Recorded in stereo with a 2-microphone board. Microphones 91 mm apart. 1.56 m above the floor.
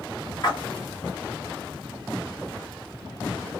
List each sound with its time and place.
0.4 s a splash: 45° left (ahead or behind), 1.4 m